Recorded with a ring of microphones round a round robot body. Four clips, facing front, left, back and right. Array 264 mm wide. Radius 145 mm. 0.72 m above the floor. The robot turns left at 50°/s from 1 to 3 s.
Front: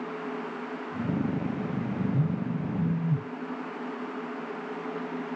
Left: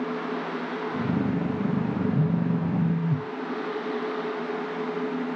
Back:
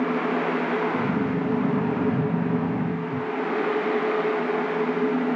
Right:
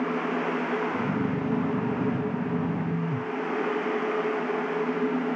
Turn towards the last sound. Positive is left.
turn(degrees=55)